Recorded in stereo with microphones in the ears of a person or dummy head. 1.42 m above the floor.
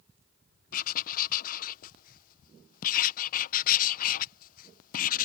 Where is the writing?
50° left (ahead or behind).